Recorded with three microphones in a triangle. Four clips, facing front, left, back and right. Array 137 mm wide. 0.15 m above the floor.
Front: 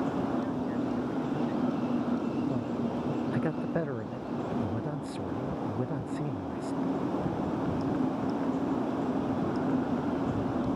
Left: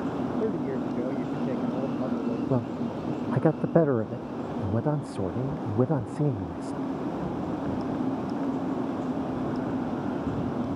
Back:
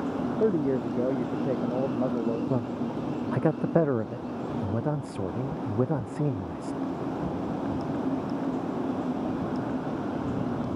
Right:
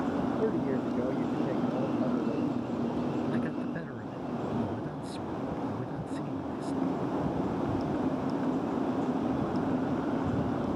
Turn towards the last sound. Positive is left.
turn(degrees=120)